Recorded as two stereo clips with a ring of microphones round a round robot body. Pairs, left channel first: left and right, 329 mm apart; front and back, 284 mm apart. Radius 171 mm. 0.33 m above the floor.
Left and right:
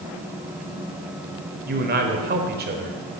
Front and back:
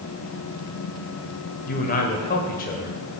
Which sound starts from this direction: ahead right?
A man speaking, at 1.7 s.